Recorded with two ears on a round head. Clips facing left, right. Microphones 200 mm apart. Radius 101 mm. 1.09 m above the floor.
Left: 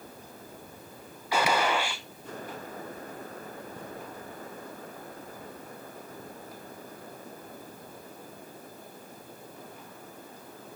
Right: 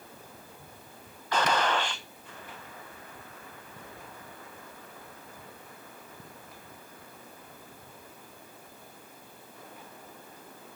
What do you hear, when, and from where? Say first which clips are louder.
1.3 s a gunshot: left 1 dB; 10° left (ahead or behind), 0.7 m